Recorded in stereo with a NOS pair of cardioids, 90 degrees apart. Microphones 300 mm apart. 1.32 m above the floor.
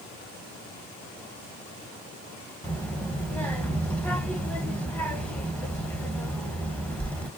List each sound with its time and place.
2.6 s a child speaking: 5° left, 1.0 m